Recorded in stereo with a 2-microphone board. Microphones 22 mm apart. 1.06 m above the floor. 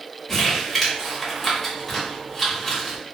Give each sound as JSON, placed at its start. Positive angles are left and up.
{"t": 0.3, "sound": "crumpling", "side_deg": 10, "distance_m": 1.0}